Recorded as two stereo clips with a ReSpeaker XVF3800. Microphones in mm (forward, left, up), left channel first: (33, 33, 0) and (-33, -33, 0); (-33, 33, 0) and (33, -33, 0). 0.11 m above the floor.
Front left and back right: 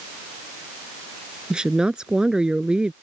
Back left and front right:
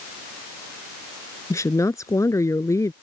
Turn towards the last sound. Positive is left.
turn(degrees=150)